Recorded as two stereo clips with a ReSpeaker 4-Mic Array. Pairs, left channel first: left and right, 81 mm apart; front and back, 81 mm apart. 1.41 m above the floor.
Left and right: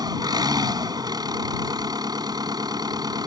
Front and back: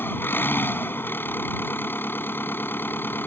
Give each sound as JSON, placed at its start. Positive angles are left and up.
{"t": 0.0, "sound": "an engine running", "azimuth_deg": -60}